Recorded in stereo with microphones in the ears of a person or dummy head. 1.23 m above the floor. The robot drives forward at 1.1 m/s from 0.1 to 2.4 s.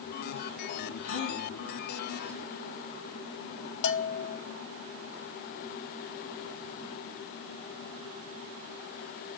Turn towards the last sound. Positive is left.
turn(degrees=50)  # may be behind; listen again after turning